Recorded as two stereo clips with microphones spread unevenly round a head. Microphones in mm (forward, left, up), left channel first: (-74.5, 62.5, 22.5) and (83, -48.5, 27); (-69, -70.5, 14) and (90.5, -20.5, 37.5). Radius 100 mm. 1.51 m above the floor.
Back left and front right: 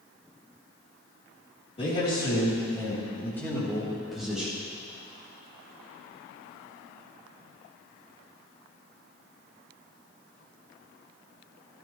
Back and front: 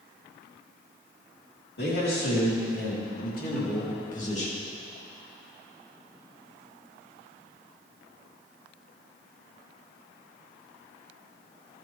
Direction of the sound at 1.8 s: 155° right.